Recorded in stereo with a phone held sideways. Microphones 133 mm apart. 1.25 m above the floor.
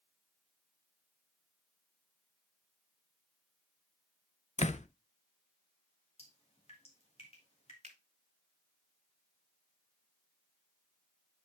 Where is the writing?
I don't hear writing.